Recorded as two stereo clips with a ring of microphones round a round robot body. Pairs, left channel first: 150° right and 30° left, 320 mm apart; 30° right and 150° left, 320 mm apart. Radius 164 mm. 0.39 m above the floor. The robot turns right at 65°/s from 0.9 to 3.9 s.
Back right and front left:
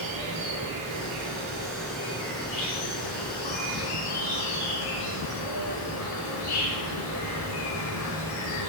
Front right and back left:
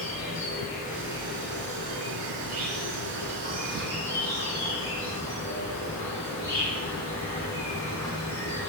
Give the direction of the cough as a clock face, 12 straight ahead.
No cough in this recording.